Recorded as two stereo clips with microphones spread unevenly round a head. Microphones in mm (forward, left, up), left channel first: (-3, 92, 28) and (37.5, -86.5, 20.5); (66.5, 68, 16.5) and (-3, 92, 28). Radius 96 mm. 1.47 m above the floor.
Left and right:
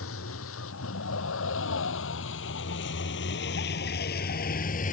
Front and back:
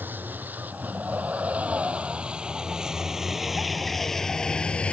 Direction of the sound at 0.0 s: 95° left.